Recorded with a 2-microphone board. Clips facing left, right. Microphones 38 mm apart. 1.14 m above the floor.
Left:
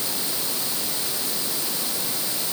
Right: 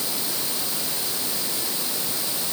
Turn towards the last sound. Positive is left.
No sound to turn to.